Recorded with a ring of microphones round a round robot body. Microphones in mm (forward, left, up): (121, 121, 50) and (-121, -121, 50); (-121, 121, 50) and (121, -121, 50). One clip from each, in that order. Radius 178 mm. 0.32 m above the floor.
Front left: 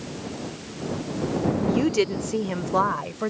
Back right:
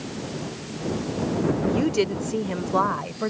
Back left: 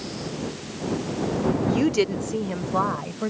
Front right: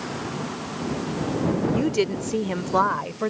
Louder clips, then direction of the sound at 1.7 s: Front left 3 dB, back left 2 dB; 110° left.